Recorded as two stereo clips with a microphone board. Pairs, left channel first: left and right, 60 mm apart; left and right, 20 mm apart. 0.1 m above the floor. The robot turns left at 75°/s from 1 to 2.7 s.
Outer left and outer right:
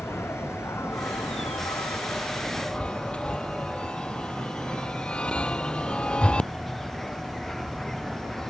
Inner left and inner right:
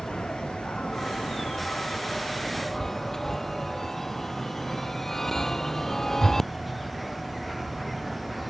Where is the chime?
20° left (ahead or behind).